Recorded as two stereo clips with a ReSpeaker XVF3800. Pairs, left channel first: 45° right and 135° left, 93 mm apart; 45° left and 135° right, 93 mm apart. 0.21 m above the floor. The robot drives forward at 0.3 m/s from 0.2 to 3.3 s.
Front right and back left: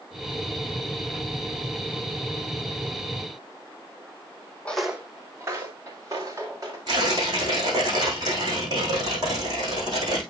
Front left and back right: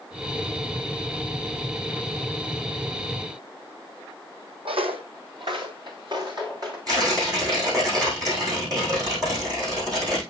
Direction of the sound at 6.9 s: Straight behind.